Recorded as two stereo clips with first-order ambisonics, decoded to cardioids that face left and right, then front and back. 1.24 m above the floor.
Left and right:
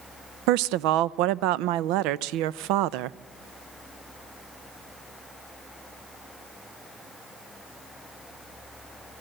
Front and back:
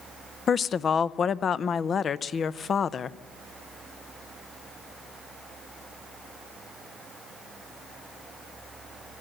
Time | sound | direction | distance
0.5 | a woman speaking | 65° right | 0.5 m